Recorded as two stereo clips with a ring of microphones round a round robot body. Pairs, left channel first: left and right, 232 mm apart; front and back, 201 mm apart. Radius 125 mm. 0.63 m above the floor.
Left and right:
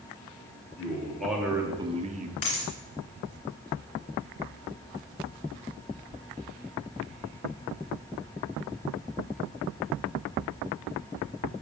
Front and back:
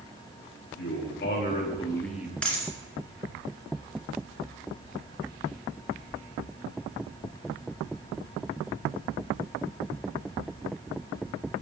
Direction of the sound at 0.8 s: 10° left.